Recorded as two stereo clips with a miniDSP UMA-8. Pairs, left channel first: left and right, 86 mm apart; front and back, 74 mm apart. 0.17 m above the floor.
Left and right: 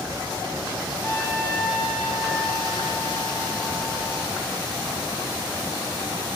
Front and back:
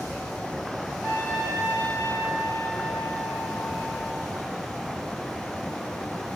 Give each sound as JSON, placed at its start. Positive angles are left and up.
{"t": 1.0, "sound": "a trumpet", "azimuth_deg": 120, "distance_m": 5.5}